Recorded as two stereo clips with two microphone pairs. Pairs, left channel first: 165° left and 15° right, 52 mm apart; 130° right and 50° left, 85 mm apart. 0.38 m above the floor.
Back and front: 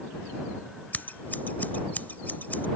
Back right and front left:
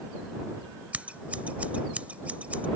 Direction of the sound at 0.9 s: 125° left.